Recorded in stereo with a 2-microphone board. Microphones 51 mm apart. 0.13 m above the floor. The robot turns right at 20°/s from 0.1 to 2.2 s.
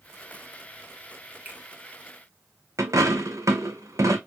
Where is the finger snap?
30° right (ahead or behind), 1.3 m.